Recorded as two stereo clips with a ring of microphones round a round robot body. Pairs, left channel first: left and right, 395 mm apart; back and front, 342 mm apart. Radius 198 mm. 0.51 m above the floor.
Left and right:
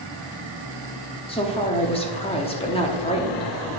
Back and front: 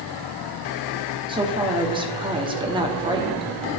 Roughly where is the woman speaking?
Ahead left.